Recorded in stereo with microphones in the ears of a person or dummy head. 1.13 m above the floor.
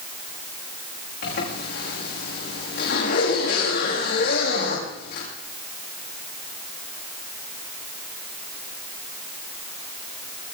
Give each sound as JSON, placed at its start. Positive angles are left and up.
{"t": 1.2, "sound": "a zipper", "side_deg": 60, "distance_m": 9.5}